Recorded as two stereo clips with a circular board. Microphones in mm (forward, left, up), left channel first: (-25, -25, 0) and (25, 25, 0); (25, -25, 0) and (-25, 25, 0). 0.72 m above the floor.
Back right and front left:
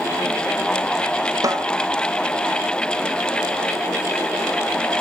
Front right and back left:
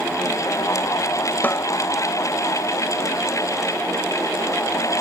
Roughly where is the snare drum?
Ahead.